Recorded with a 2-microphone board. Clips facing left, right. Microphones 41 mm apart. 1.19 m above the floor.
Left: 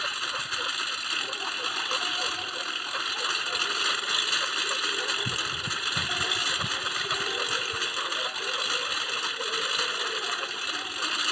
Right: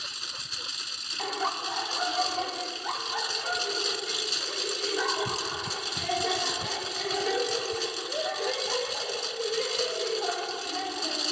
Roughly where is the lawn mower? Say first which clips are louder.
Left 8 dB; left.